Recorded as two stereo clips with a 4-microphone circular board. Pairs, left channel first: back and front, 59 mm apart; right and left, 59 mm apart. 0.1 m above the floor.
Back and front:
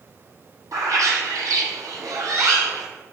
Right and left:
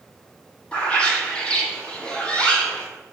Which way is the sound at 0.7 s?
20° right.